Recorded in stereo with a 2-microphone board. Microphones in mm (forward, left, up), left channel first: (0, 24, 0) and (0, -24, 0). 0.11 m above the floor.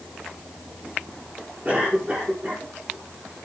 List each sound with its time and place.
1.6 s a cough: 25° right (ahead or behind), 8 m